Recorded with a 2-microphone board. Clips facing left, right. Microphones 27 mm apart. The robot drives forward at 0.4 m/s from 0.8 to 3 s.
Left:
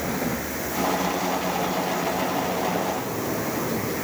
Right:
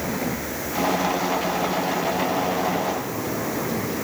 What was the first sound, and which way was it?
Only background noise.